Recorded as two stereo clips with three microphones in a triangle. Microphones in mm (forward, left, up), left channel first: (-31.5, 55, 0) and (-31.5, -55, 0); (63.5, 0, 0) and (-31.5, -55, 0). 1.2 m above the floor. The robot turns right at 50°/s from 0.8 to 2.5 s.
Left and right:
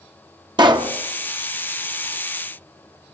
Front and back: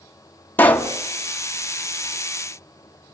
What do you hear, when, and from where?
0.6 s a pop: 45° right, 1.3 m; by 0.9 s 40° right, 1.3 m